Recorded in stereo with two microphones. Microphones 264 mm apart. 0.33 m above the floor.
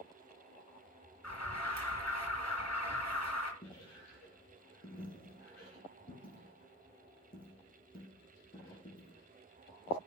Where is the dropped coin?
35° left (ahead or behind), 3.5 m.